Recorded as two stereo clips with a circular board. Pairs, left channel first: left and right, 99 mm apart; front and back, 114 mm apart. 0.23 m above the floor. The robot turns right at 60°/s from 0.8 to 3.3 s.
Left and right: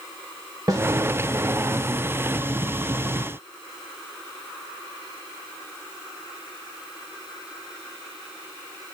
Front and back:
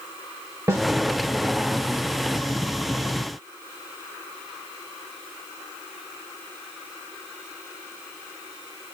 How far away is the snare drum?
About 1.0 m.